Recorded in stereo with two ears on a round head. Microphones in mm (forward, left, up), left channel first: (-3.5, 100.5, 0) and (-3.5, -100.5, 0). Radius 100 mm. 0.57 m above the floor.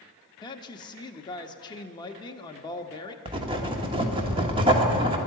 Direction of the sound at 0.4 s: 20° left (ahead or behind).